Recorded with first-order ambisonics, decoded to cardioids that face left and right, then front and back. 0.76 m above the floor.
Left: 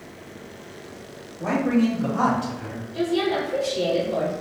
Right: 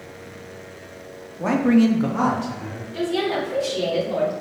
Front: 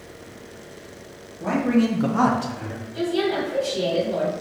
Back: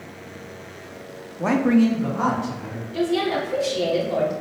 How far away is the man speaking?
About 0.8 m.